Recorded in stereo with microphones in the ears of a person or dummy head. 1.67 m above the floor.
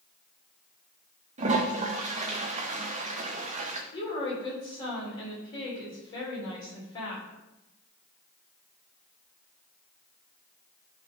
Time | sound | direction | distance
1.4 | a toilet flushing | 30° right (ahead or behind) | 0.7 m
3.9 | a woman speaking | 30° left (ahead or behind) | 3.5 m